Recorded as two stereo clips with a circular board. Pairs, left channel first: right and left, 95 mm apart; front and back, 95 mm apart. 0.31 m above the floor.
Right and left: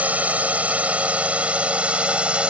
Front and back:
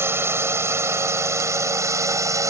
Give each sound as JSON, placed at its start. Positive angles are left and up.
{"t": 0.0, "sound": "a drone", "azimuth_deg": 150}